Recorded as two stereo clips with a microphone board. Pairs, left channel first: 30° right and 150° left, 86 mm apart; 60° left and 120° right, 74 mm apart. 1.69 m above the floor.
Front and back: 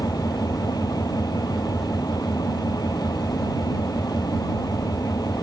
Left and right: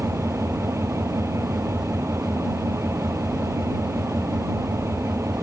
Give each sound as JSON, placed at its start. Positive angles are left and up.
{"t": 0.0, "sound": "an engine running", "azimuth_deg": -70}